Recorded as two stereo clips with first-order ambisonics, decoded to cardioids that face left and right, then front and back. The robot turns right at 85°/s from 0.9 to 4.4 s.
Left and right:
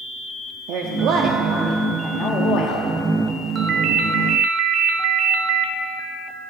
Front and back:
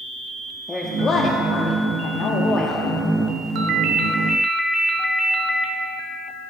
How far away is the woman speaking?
About 0.8 m.